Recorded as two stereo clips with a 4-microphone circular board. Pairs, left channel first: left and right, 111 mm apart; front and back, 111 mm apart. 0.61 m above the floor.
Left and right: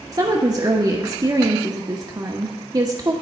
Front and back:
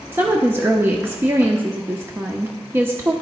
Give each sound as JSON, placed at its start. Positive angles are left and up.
{"t": 0.1, "sound": "a woman speaking", "azimuth_deg": -120, "distance_m": 0.9}